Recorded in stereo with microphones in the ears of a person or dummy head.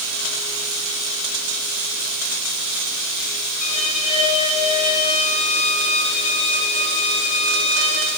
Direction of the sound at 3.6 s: 40° left (ahead or behind).